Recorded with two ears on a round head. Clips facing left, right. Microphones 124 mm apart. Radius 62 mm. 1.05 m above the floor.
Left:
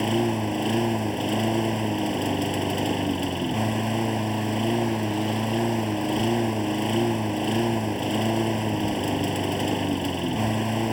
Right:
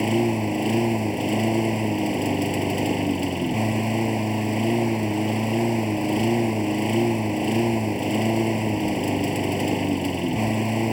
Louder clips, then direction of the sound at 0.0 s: Right 2 dB; 10° right (ahead or behind).